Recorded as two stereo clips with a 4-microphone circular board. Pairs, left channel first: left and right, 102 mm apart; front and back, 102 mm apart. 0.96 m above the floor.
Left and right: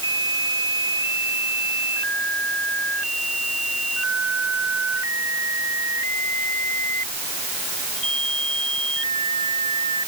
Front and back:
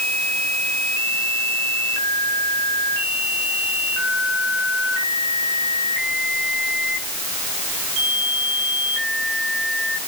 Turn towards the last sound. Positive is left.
No sound to turn to.